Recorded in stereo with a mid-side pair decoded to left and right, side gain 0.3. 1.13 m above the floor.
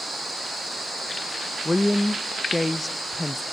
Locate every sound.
1.6 s a woman speaking: 30° left, 0.7 m